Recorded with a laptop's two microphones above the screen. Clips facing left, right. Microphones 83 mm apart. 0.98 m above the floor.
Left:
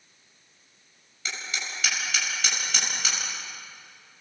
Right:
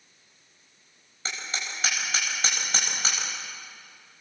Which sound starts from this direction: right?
Hammering, at 1.2 s.